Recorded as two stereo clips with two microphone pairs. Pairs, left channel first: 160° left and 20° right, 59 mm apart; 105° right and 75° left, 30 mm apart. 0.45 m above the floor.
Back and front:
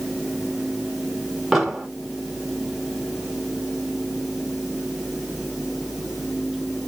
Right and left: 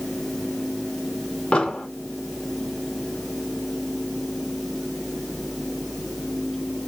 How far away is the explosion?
About 1.2 m.